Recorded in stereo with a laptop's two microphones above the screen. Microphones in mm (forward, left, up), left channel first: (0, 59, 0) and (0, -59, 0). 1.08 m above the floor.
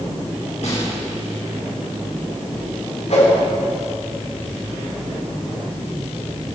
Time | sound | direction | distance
0.6 | a snare drum | 70° left (ahead or behind) | 5 m
3.1 | a whoosh | 70° left (ahead or behind) | 4 m